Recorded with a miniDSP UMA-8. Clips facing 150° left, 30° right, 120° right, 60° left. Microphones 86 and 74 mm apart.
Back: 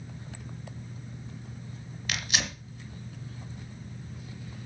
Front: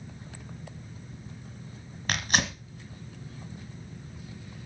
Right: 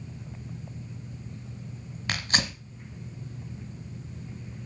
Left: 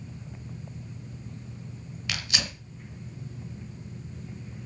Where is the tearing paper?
70° right, 2 m.